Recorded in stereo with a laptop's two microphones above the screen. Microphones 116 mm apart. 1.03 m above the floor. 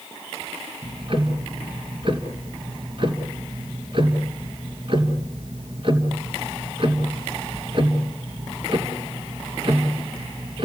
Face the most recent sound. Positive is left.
turn(degrees=-50)  # may be behind; listen again after turning